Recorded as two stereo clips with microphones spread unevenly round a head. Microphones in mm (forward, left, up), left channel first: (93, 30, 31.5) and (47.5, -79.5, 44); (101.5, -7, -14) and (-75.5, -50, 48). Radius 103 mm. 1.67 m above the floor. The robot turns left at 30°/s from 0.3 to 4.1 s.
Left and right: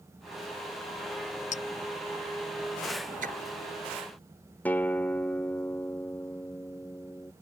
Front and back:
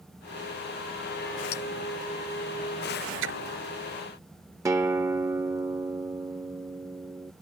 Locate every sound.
1.5 s a clink: 55° left; by 1.6 s 50° left
3.2 s a splash: 155° right; by 3.4 s 160° right
4.7 s a guitar: 150° left